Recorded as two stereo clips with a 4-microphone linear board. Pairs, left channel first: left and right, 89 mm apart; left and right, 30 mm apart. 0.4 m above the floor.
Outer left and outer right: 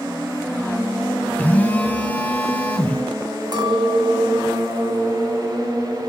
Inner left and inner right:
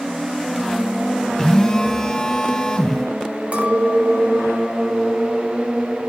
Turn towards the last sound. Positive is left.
turn(degrees=-50)  # may be behind; listen again after turning